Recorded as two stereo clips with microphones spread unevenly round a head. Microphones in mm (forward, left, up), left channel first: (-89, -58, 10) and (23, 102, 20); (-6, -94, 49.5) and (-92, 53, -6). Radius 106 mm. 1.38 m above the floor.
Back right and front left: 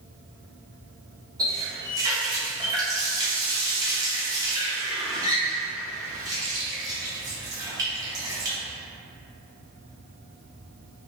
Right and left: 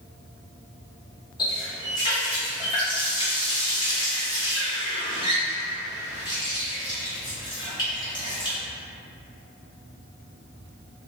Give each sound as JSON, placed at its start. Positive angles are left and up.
{"t": 1.4, "sound": "a running tap", "azimuth_deg": -15, "distance_m": 0.5}